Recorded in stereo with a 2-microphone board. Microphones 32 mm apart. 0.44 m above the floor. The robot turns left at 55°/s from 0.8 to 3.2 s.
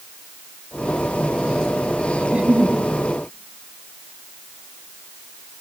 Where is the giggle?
40° right, 2.5 m; by 2.8 s 75° right, 2.5 m.